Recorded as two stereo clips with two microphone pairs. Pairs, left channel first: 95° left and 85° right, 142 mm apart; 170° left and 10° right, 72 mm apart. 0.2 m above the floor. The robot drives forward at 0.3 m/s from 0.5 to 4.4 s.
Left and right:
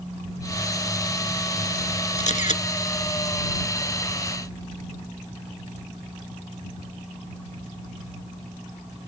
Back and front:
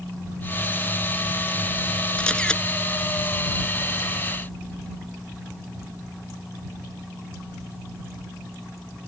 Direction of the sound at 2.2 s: 95° left.